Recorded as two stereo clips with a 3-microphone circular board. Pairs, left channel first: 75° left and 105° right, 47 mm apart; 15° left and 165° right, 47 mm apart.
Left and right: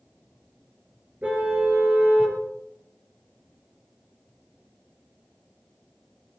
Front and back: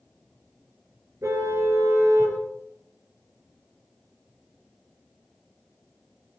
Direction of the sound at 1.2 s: 165° right.